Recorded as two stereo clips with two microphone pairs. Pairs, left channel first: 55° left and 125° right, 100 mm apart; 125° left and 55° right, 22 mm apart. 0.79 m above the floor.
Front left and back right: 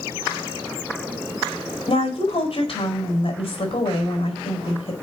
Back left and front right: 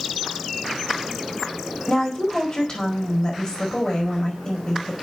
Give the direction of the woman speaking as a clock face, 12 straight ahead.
9 o'clock.